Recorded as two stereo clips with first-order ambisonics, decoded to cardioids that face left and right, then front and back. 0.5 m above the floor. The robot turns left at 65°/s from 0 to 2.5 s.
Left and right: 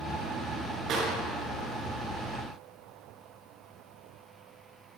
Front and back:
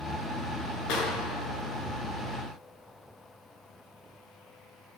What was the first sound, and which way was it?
A clap, 40° right.